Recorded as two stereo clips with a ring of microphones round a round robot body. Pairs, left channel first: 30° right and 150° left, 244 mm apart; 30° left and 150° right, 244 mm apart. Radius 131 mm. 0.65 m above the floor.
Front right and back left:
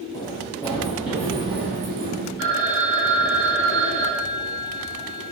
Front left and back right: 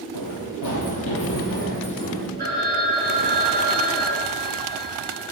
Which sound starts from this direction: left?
A phone ringing, at 2.4 s.